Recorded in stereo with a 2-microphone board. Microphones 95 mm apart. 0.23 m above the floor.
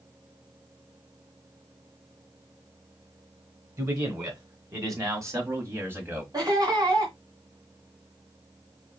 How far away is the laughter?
About 1.8 m.